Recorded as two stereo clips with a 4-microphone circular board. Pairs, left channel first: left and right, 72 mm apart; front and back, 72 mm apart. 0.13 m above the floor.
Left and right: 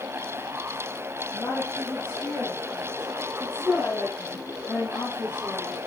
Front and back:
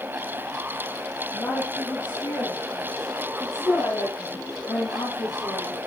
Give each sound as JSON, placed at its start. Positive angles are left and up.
{"t": 1.3, "sound": "a woman speaking", "azimuth_deg": 40, "distance_m": 4.0}